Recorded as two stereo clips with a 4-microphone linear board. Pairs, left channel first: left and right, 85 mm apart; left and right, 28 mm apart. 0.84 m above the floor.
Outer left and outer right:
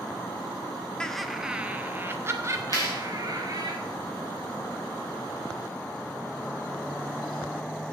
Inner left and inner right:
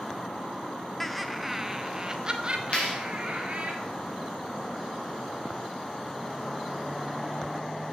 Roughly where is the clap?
Left.